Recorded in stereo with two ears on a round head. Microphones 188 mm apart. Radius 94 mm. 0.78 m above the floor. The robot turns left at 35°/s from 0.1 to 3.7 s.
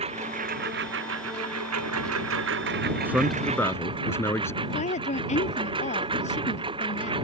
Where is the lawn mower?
30° right; by 7.2 s 155° right.